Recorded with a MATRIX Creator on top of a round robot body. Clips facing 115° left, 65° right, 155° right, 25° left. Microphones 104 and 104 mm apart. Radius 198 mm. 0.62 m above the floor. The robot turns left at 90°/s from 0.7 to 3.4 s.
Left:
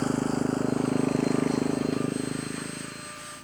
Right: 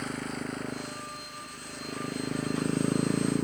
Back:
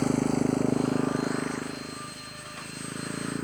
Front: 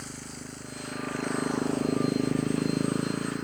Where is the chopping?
No chopping in this recording.